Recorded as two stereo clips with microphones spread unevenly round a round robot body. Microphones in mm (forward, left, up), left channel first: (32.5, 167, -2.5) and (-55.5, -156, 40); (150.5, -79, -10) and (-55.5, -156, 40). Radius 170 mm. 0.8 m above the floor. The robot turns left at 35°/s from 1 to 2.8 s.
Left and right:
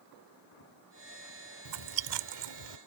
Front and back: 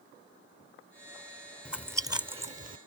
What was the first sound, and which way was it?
Chewing, 70° right.